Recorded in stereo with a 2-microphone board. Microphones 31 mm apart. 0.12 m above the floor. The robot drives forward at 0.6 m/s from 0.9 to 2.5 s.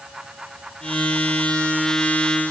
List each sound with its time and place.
Only background noise.